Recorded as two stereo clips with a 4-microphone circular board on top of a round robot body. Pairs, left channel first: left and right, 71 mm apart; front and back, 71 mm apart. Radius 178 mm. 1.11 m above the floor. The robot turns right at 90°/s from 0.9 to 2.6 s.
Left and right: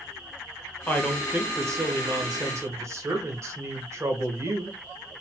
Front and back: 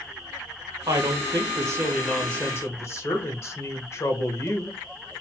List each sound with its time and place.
0.9 s a woman speaking: 160° left, 1.3 m; by 4.8 s 50° right, 1.3 m